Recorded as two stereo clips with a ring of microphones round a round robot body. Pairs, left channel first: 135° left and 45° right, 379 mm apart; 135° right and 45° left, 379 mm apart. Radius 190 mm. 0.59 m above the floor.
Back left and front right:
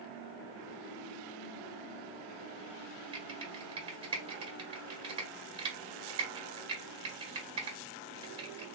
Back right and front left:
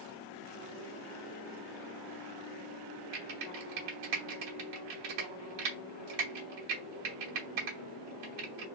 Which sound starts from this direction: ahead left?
Typing on a keyboard, at 3.1 s.